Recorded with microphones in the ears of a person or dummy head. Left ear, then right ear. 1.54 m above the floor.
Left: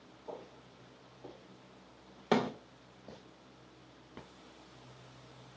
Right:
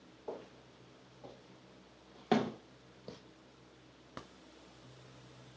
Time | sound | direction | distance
0.3 | footsteps | 50° right (ahead or behind) | 2.5 m
2.3 | a thud | 5° left (ahead or behind) | 0.9 m